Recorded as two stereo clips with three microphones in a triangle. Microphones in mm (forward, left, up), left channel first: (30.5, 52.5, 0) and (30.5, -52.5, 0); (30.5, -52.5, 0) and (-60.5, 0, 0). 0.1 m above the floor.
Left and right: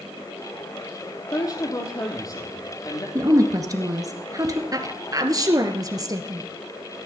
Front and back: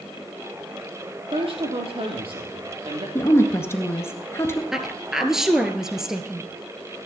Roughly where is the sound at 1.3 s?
Behind left.